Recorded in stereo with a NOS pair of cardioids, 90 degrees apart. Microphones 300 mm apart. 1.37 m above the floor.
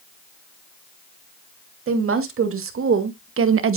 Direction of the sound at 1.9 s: 45° right.